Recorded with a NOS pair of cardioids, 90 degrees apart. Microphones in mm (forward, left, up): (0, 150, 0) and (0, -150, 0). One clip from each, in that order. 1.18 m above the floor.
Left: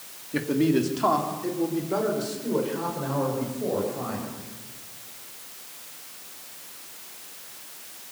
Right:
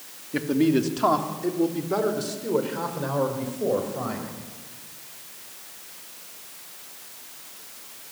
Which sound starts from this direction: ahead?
A man speaking, at 0.3 s.